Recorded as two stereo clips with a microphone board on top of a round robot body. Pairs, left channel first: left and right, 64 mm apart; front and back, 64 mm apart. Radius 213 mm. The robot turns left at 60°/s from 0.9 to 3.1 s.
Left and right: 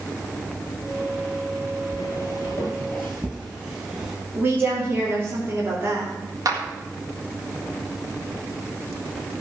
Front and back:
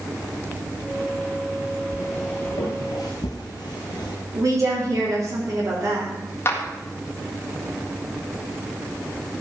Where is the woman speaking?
150° right, 3.5 m.